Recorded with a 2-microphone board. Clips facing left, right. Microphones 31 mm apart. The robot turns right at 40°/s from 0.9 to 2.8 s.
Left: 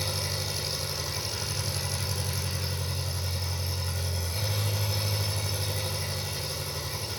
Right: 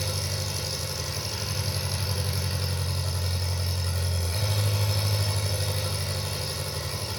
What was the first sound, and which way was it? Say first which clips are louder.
An engine running: even; 165° left.